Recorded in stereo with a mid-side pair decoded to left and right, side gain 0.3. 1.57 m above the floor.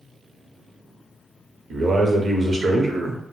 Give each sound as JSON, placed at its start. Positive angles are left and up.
{"t": 1.7, "sound": "a man speaking", "azimuth_deg": -60, "distance_m": 0.8}